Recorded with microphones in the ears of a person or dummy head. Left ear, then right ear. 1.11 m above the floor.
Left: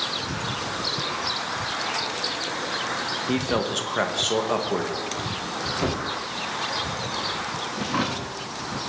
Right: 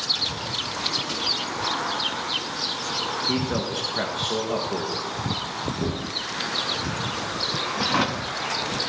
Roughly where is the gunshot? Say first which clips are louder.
Left 3 dB; left.